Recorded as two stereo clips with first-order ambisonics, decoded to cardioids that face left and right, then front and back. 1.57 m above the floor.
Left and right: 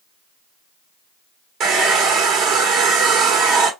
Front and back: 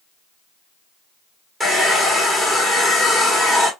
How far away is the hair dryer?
About 1.4 m.